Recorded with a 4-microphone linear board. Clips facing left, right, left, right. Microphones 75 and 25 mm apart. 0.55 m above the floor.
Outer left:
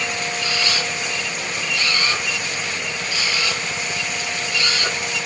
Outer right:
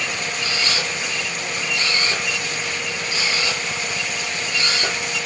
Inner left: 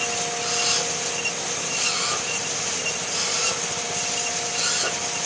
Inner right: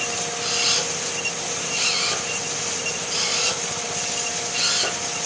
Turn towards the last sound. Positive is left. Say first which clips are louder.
# even, inner right 3 dB
turn(degrees=-30)  # may be behind; listen again after turning